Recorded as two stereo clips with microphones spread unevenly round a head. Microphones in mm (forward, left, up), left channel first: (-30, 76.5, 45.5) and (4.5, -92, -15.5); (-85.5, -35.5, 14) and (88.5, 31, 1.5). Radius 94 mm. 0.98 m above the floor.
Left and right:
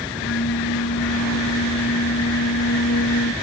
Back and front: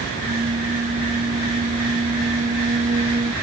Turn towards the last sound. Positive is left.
turn(degrees=80)